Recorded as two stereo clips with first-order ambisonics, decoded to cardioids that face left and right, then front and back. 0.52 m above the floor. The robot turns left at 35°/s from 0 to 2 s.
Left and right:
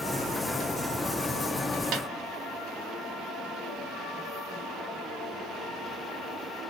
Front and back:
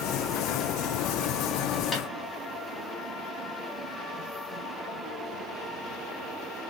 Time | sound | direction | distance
1.9 | a snare drum | 70° right | 1.5 m